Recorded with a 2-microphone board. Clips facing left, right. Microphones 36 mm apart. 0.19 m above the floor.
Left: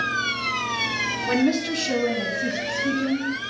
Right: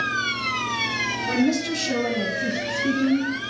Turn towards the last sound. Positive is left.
turn(degrees=-35)  # may be behind; listen again after turning